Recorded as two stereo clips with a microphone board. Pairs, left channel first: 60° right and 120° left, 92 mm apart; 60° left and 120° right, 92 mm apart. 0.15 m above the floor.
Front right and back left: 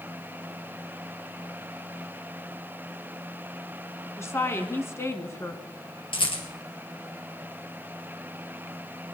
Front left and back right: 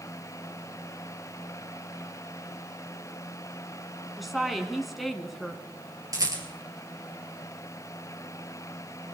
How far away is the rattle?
About 2.5 m.